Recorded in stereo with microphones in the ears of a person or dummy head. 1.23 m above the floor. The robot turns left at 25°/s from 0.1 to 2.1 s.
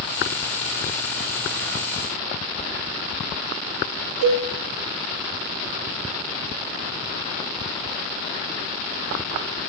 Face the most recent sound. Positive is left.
turn(degrees=-70)  # may be behind; listen again after turning